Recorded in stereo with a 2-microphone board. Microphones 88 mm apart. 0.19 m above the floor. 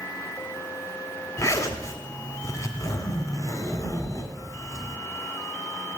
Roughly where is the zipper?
Left.